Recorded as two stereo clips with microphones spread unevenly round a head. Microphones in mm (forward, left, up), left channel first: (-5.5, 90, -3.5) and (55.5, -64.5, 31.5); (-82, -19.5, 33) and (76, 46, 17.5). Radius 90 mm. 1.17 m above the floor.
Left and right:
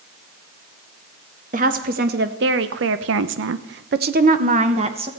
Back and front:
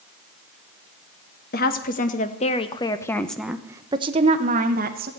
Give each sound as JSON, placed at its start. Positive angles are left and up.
{"t": 1.5, "sound": "a woman speaking", "azimuth_deg": -120, "distance_m": 1.7}